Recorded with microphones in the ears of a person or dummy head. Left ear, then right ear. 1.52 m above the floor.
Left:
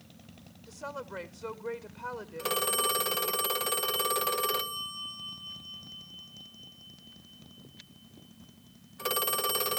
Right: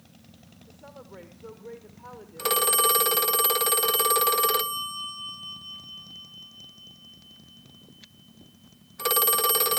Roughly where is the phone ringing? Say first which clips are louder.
Right 6 dB; right.